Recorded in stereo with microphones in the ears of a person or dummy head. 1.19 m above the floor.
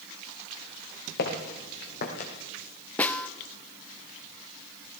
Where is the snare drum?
10° left (ahead or behind), 0.7 m.